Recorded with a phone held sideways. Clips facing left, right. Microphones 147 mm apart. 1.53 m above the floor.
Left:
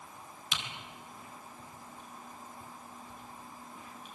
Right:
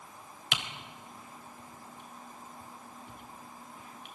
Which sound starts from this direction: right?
Typing on a keyboard, at 0.5 s.